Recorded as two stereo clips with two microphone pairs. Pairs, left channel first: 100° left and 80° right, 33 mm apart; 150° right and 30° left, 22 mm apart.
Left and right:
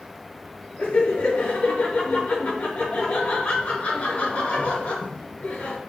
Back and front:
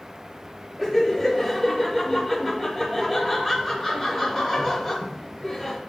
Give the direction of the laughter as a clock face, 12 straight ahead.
8 o'clock.